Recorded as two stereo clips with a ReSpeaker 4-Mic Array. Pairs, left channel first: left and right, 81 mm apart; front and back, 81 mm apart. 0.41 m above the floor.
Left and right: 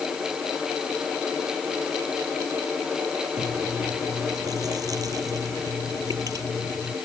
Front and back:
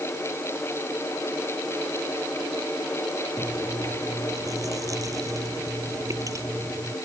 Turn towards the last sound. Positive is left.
turn(degrees=-135)